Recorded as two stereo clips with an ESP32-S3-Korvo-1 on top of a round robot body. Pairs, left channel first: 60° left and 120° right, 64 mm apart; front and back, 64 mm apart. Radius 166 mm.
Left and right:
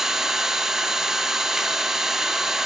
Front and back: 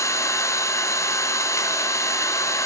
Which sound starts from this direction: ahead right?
An engine running, at 0.0 s.